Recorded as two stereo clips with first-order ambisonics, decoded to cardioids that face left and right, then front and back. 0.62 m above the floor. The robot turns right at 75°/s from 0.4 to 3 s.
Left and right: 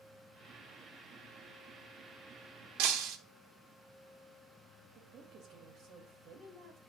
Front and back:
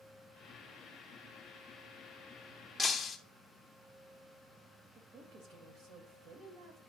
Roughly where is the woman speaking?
Behind right.